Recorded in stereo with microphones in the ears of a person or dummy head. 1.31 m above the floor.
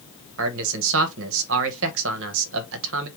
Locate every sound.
0.4 s a man speaking: 75° right (ahead or behind), 0.9 m